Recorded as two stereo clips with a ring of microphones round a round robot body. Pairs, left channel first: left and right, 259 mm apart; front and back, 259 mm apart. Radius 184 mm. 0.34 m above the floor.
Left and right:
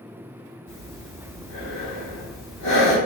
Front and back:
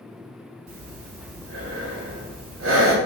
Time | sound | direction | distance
0.7 | breathing | 145° left | 0.8 m